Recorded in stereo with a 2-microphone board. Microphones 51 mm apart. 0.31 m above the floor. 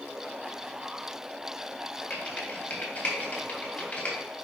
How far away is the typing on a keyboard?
About 1.9 m.